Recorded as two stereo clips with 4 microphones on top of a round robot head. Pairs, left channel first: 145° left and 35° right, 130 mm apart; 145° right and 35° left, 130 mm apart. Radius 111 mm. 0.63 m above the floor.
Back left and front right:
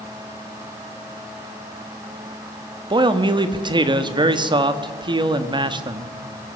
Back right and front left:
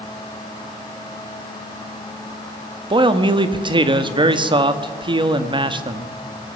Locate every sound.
2.9 s a man speaking: straight ahead, 1.6 m